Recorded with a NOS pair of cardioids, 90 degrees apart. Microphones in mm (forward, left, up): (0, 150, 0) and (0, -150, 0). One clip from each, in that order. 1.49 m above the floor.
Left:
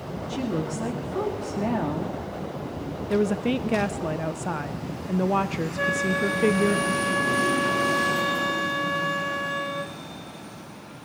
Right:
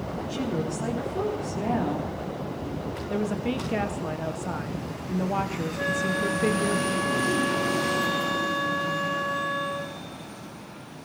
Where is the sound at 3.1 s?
20° left, 0.7 m.